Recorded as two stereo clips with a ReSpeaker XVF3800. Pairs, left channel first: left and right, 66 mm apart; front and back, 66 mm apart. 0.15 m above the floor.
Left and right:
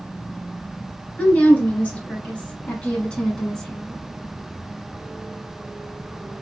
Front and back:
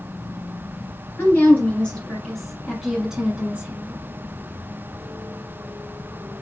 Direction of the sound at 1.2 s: 45° left.